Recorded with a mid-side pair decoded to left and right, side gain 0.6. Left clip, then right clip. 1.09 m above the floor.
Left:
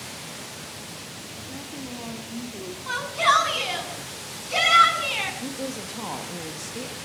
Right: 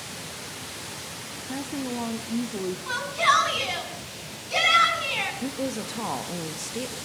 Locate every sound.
1.5 s a woman speaking: 40° right, 1.7 m
2.9 s a shout: 5° left, 8.5 m
5.4 s a woman speaking: 20° right, 2.0 m